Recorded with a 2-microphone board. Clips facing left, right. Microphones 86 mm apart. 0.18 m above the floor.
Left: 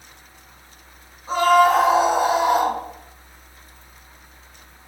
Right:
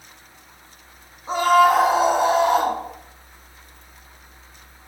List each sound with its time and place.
1.3 s a scream: 20° right (ahead or behind), 1.2 m; by 2.8 s 15° left (ahead or behind), 1.4 m